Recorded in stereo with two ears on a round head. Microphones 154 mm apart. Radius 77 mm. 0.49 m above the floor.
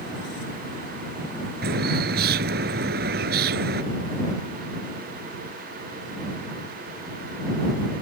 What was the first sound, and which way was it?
A bird, 60° right (ahead or behind).